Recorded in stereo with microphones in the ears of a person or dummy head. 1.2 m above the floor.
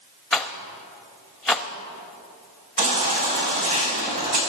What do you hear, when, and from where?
0.3 s a rattle: centre (ahead or behind), 0.8 m
2.8 s a baby crying: 40° right (ahead or behind), 4 m